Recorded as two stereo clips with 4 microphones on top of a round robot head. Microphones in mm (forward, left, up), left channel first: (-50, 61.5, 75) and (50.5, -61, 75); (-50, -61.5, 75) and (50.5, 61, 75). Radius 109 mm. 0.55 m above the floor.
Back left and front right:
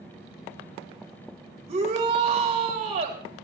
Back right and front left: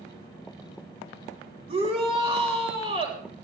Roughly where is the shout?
Ahead.